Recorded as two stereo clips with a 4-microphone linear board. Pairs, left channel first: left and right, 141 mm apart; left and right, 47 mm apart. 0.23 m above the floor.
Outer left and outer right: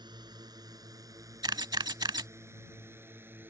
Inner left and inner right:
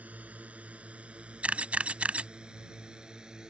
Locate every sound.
0.0 s a drone: 30° right (ahead or behind); by 3.5 s 15° right (ahead or behind)
1.4 s a camera shutter: 30° right (ahead or behind)